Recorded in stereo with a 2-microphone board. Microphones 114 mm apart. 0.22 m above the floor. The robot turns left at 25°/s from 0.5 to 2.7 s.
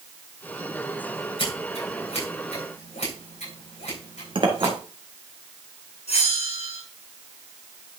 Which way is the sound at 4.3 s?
50° right (ahead or behind).